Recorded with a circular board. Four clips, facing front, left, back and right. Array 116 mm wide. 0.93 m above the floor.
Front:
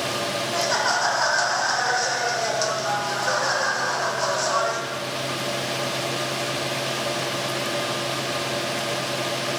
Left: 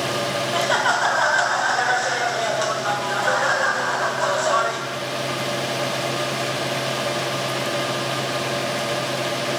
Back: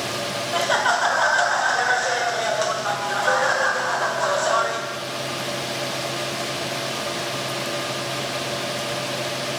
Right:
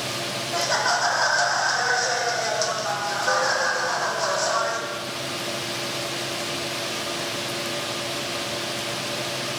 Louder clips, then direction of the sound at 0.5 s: Left 2 dB, back 4 dB; 130° left.